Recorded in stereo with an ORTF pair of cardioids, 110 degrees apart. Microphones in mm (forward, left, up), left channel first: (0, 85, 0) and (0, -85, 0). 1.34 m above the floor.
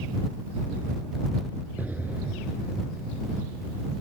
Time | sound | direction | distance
1.8 | an explosion | 10° right | ?